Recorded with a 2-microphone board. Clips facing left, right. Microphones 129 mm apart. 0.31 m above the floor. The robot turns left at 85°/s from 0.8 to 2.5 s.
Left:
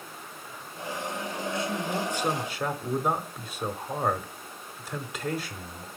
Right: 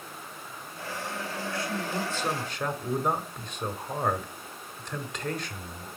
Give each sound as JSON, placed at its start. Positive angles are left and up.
{"t": 1.5, "sound": "a man speaking", "side_deg": 20, "distance_m": 1.0}